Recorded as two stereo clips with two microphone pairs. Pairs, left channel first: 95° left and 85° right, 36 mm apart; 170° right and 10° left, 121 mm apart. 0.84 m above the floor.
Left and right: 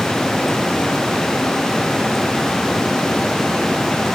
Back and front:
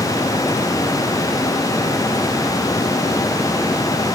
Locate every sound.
Only background noise.